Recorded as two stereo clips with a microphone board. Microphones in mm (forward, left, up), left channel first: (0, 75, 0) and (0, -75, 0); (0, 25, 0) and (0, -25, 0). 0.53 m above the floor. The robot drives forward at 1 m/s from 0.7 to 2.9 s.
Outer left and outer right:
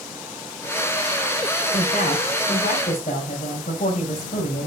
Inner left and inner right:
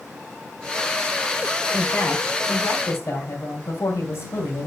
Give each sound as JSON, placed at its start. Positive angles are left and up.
{"t": 1.7, "sound": "a woman speaking", "side_deg": 70, "distance_m": 2.5}